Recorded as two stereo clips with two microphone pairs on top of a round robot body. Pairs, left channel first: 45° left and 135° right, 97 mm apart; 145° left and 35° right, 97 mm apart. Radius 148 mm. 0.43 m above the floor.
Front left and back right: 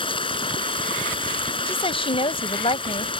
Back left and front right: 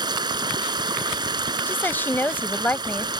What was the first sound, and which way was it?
Running water, 10° left.